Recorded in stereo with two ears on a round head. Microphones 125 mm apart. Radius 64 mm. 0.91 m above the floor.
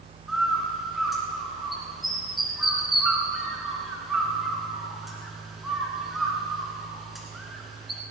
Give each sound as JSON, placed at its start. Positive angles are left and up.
{"t": 0.3, "sound": "a bird", "side_deg": 0, "distance_m": 2.0}